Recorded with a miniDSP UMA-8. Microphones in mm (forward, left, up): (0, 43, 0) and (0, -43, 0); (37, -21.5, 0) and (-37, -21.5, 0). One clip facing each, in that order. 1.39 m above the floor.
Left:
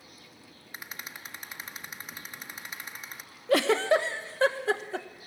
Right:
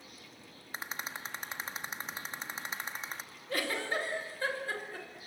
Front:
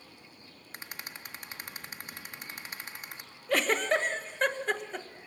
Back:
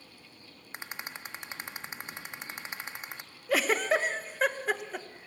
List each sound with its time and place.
0.7 s a rattle: 135° right, 0.9 m
3.5 s a giggle: 95° left, 1.3 m